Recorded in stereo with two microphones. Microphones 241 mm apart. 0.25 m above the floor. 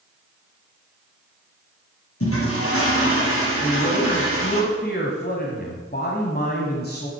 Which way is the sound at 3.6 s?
40° left (ahead or behind).